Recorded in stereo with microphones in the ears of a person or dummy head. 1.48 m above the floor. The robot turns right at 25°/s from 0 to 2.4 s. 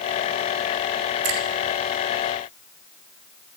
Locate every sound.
1.2 s a finger snap: 90° right, 4 m; by 1.4 s 85° right, 4 m